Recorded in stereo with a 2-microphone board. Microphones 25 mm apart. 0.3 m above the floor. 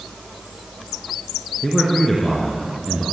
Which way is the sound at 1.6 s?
25° left (ahead or behind).